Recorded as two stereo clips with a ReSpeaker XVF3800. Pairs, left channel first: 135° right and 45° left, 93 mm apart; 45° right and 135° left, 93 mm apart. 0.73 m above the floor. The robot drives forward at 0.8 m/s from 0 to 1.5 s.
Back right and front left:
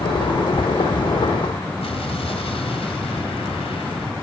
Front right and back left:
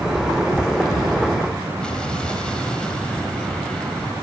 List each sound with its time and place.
1.8 s an explosion: 125° right, 2 m